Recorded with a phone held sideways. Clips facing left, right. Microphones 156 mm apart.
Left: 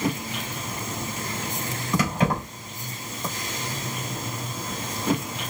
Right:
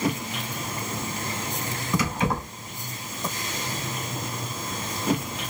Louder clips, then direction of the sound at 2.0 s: Left 4 dB; 55° left (ahead or behind).